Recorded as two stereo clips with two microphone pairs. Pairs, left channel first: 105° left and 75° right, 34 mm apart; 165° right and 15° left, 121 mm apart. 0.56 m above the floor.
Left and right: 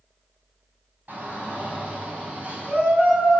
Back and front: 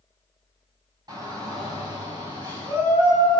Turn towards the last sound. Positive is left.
turn(degrees=-35)